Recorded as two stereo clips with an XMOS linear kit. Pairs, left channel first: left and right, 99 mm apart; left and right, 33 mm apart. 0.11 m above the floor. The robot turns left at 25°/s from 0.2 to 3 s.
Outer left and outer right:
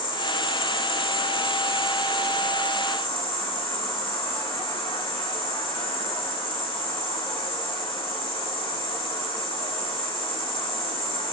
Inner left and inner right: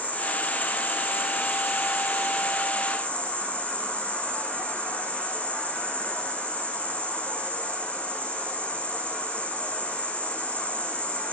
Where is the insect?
130° left, 7 m; by 11.3 s 60° left, 7 m.